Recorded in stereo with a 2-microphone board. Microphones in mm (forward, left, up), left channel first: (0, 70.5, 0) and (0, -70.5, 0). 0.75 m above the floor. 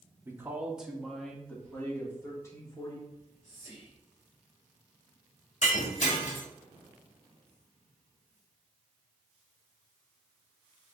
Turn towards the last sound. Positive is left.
turn(degrees=55)  # may be behind; listen again after turning